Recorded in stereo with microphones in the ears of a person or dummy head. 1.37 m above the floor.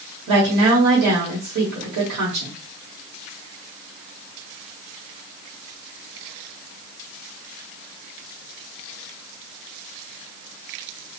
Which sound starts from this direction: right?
A woman speaking, at 0.3 s.